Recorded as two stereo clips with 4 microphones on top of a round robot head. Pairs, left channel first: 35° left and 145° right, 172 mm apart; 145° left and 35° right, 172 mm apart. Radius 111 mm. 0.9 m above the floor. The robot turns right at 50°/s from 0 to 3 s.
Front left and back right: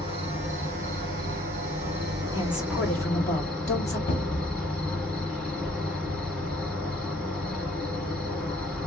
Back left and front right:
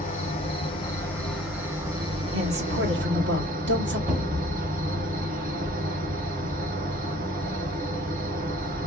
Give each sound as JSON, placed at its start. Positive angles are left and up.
{"t": 0.0, "sound": "an insect", "azimuth_deg": 165, "distance_m": 2.0}
{"t": 2.3, "sound": "a woman speaking", "azimuth_deg": -70, "distance_m": 2.5}
{"t": 4.1, "sound": "a cupboard door", "azimuth_deg": 10, "distance_m": 1.7}